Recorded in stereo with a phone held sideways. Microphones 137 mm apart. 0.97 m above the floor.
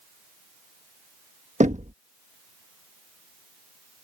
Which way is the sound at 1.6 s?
60° right (ahead or behind).